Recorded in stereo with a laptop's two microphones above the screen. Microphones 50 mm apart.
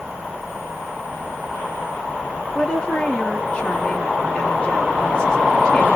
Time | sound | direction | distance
2.5 | a woman speaking | 20° left (ahead or behind) | 1.0 m